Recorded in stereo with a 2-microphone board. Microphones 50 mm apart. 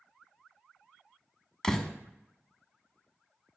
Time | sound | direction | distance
1.6 | a door slam | 15° left (ahead or behind) | 0.9 m